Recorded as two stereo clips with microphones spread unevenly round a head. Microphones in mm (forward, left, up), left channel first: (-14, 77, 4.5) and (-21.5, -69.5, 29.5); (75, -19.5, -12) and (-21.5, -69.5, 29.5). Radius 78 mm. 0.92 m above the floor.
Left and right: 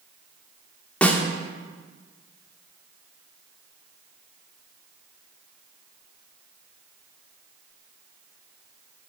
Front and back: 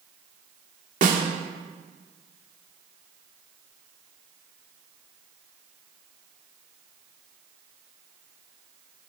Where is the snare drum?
170° left, 1.3 m.